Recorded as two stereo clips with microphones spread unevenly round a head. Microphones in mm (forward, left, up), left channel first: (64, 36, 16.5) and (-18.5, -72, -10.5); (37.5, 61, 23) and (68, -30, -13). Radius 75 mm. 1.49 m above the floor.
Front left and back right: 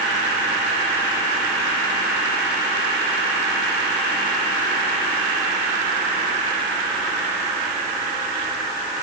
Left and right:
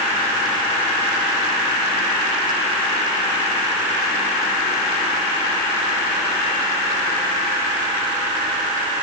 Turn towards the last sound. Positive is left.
No sound to turn to.